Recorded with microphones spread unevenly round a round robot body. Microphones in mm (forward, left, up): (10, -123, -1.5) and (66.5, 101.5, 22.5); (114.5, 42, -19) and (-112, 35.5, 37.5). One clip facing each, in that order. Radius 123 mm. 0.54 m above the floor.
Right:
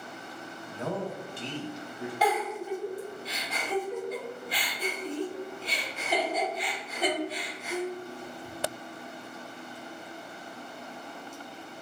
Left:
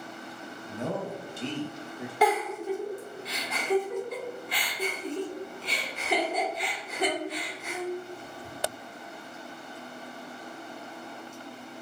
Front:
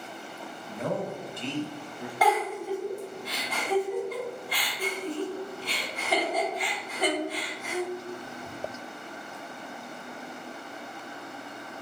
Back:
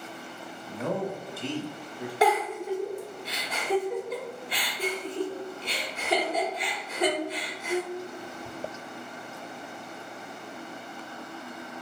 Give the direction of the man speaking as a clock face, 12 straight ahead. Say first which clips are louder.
Left 1 dB, back 1 dB; 12 o'clock.